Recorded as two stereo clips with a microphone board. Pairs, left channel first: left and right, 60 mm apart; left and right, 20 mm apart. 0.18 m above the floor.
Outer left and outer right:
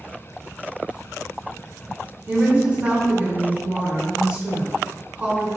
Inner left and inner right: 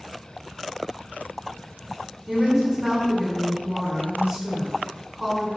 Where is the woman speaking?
25° right (ahead or behind), 1.2 m.